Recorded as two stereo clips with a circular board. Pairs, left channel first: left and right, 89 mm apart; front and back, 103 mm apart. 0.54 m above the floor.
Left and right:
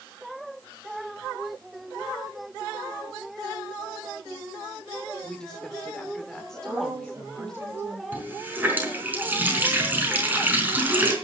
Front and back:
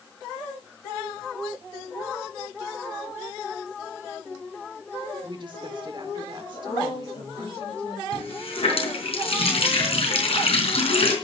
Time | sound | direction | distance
5.2 | a woman speaking | 170° left | 1.6 m
6.5 | a woman speaking | 25° right | 8.5 m
8.1 | a running tap | 20° right | 4.5 m